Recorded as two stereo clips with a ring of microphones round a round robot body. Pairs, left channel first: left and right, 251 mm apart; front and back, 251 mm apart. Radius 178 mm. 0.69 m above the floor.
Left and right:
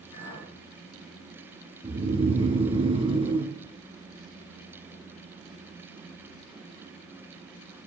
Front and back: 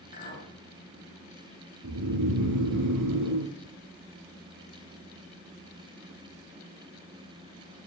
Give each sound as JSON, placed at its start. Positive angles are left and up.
{"t": 0.1, "sound": "a clink", "azimuth_deg": 60, "distance_m": 4.0}
{"t": 1.8, "sound": "snoring", "azimuth_deg": -160, "distance_m": 1.4}